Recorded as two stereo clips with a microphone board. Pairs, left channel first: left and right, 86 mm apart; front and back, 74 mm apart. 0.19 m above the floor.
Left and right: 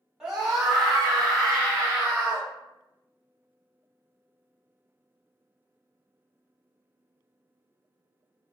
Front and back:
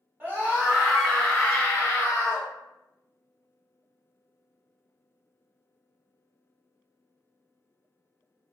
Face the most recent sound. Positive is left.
turn(degrees=15)